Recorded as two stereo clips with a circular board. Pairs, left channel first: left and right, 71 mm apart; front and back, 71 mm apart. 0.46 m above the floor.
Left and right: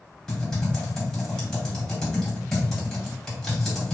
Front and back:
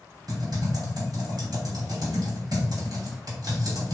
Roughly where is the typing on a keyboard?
Behind.